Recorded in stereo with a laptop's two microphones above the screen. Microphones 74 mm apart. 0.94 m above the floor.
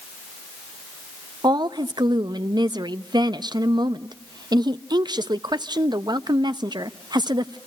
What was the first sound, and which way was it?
A woman speaking, 70° right (ahead or behind).